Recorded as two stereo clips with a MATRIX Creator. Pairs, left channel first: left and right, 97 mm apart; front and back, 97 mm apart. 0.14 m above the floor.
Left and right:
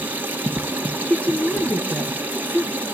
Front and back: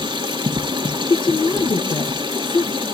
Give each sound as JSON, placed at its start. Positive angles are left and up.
{"t": 0.0, "sound": "running water", "azimuth_deg": -160, "distance_m": 1.9}
{"t": 1.0, "sound": "a woman speaking", "azimuth_deg": 15, "distance_m": 1.9}